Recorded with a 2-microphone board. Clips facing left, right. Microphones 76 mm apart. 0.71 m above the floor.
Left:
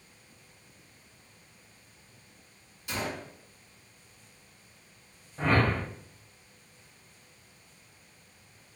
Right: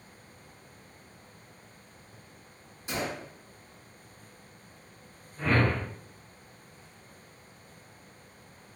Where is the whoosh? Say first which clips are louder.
Left 1 dB; 75° left (ahead or behind), 1.1 m.